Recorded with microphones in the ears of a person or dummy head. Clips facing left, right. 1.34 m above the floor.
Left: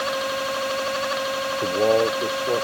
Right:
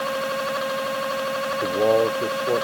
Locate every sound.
1.6 s a man speaking: centre (ahead or behind); by 2.6 s 5° right (ahead or behind)